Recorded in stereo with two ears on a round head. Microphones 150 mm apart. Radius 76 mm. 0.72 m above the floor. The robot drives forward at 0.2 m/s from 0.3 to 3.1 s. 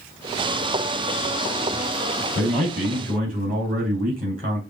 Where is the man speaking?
45° right (ahead or behind), 4 m.